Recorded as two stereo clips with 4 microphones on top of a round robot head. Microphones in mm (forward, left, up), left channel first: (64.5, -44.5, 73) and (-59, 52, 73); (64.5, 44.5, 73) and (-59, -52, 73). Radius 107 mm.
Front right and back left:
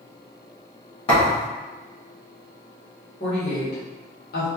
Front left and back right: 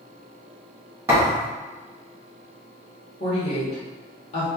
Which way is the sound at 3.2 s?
10° right.